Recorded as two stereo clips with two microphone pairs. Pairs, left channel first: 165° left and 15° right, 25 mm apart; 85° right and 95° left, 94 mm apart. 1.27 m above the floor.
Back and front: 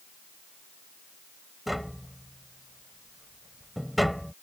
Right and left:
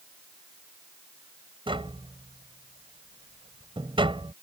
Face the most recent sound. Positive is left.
turn(degrees=75)